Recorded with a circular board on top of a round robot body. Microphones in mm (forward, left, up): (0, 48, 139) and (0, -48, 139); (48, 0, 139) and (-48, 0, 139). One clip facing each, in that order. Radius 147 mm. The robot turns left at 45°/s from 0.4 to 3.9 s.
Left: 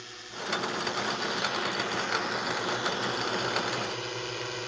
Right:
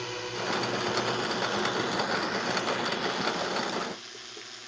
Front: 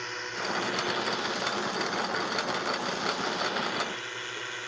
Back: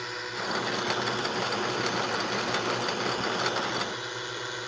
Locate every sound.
0.0 s a drone: 95° right; by 4.7 s 110° left